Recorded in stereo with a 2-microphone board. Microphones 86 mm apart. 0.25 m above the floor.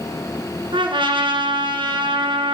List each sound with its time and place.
0.7 s a trumpet: 75° right (ahead or behind), 1.1 m